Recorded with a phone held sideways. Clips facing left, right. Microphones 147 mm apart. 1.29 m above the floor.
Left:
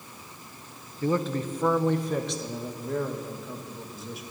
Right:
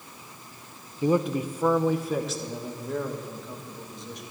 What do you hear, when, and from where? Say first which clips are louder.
1.0 s a man speaking: right 3 dB; 15° right (ahead or behind), 0.7 m; by 4.2 s 5° left (ahead or behind), 2.5 m